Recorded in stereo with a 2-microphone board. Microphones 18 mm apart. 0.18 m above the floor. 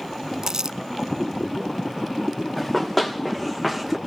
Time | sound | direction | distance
0.4 | crumpling | 40° right (ahead or behind) | 0.5 m
2.6 | running footsteps | 20° left (ahead or behind) | 3 m